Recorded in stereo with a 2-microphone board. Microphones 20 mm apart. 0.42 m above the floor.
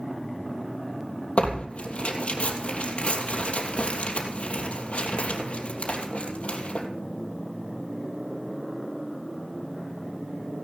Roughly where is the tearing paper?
Left.